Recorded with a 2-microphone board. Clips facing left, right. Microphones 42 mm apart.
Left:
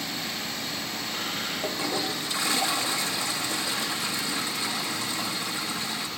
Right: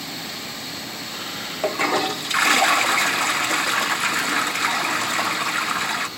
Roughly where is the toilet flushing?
Right.